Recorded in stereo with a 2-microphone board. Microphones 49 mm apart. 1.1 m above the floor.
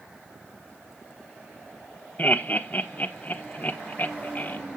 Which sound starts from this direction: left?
Laughter, at 2.2 s.